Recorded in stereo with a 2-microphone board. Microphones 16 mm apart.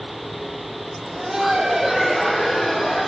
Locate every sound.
1.0 s laughter: 45° right (ahead or behind), 1.6 m; by 3.1 s 25° left (ahead or behind), 1.6 m